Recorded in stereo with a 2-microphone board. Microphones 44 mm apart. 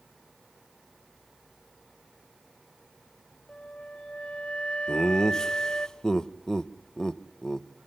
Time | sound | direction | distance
3.5 | a flute | 25° left (ahead or behind) | 0.6 m
4.9 | laughter | 15° left (ahead or behind) | 0.8 m